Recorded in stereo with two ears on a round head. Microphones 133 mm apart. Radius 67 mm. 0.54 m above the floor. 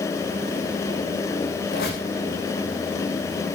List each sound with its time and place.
1.7 s a squeak: 75° left (ahead or behind), 5 m